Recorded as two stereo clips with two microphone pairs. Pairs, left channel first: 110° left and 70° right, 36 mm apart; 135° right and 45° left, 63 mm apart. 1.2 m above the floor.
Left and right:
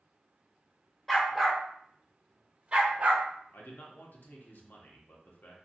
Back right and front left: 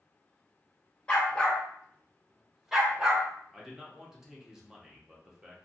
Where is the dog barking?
Straight behind, 0.9 m; by 3.3 s 25° right, 1.1 m.